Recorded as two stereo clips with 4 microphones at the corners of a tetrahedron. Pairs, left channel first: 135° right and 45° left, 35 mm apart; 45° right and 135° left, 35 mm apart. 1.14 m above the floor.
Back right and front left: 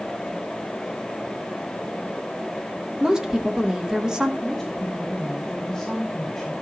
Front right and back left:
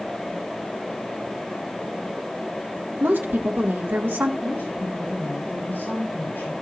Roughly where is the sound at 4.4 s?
Ahead right.